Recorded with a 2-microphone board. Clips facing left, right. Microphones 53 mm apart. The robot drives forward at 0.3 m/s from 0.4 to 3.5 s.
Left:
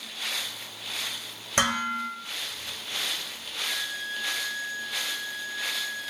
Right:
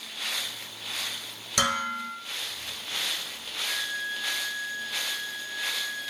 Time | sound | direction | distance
1.6 | dishes clattering | 35° left (ahead or behind) | 1.3 m
3.6 | a violin | 35° left (ahead or behind) | 1.8 m